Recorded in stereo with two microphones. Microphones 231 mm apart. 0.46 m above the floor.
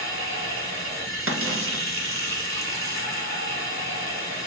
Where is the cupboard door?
80° right, 0.5 m.